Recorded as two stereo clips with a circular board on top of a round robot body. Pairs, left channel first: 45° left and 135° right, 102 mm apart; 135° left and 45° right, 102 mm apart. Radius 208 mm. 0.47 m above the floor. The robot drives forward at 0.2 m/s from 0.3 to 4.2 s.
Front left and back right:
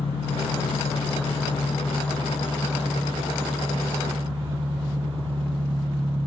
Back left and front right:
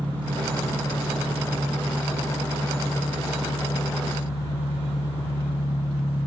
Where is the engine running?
155° right, 1.9 m; by 6.3 s 160° right, 2.5 m.